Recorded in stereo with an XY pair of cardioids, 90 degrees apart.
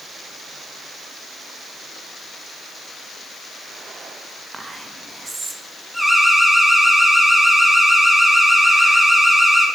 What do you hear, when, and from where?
4.5 s whispering: 25° right, 1.8 m
5.9 s an alarm: 5° left, 4 m